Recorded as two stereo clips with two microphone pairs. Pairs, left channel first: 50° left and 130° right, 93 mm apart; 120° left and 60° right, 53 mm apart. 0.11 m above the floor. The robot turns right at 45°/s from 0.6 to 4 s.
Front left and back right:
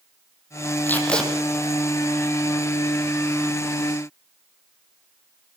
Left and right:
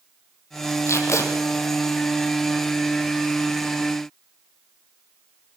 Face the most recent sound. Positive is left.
turn(degrees=-105)